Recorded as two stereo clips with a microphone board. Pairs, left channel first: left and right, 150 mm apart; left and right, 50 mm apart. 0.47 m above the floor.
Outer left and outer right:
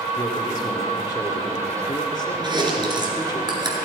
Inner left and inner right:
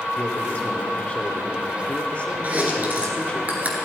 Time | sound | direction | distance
0.1 | a man speaking | 30° left (ahead or behind) | 1.4 m
2.4 | chewing | 30° right (ahead or behind) | 1.9 m